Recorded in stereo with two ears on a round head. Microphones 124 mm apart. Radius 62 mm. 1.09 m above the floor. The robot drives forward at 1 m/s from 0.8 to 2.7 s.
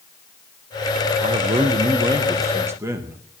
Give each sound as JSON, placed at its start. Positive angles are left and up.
{"t": 1.2, "sound": "a man speaking", "side_deg": -35, "distance_m": 0.9}